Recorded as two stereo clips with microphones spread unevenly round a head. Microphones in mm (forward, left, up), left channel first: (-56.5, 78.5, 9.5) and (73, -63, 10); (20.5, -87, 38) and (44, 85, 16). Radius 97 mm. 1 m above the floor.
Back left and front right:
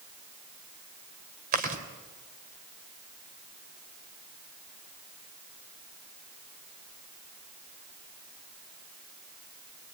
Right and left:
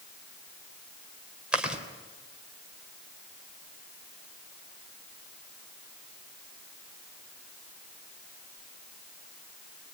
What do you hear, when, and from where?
1.5 s chewing: 5° right, 3 m